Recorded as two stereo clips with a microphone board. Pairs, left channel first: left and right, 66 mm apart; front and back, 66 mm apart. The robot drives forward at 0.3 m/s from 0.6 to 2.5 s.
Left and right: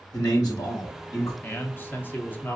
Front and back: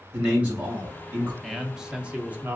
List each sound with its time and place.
0.1 s a man speaking: 110° left, 2.5 m; by 1.3 s 115° left, 2.5 m
1.4 s a man speaking: 90° left, 0.6 m; by 2.6 s 135° left, 0.7 m